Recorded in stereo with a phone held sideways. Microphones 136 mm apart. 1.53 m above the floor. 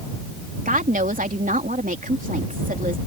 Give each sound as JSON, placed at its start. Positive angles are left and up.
{"t": 0.7, "sound": "a woman speaking", "side_deg": -85}